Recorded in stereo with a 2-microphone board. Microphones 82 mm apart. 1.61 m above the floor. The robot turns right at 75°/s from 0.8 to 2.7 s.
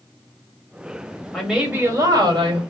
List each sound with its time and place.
1.3 s a woman speaking: straight behind, 1.8 m; by 2.6 s 85° right, 1.8 m